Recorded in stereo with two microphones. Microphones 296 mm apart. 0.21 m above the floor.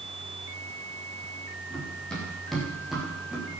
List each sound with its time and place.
1.7 s running footsteps: 5° left (ahead or behind), 9.5 m; by 3.5 s 5° right (ahead or behind), 8 m